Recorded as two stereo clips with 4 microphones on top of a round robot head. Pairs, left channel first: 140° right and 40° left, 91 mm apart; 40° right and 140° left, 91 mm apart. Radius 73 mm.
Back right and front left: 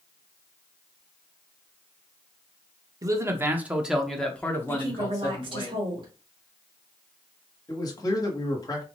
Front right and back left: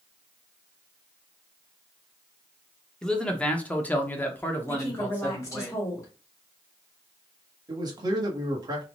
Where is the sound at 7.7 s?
Straight behind, 1.3 m.